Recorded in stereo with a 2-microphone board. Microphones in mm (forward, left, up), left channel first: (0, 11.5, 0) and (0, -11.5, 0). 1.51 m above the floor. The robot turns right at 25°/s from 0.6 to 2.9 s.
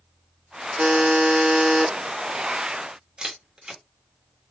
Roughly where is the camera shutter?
Right.